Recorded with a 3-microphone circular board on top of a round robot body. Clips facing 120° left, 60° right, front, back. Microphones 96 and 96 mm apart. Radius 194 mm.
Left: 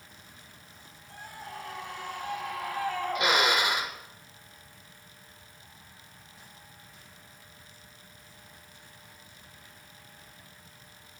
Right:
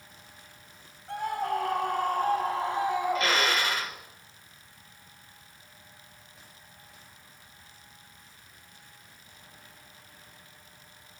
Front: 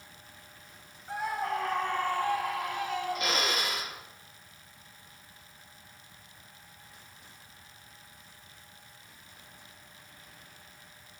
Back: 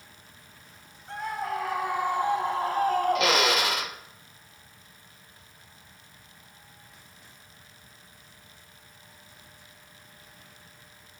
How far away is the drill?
About 1.3 m.